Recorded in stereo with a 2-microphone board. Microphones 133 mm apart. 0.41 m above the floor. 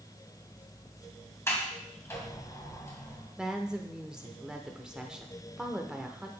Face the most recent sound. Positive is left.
turn(degrees=-5)  # may be behind; listen again after turning